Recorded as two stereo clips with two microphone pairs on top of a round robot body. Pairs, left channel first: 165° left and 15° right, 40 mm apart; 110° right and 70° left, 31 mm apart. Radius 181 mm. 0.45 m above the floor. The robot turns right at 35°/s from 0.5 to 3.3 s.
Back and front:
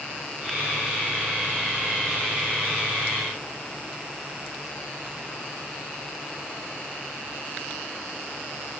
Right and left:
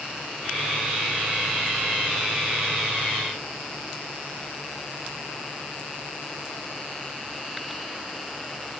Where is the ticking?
No ticking in this recording.